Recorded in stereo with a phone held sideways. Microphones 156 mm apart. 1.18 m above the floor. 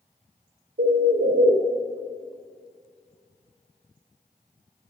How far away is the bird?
About 0.8 m.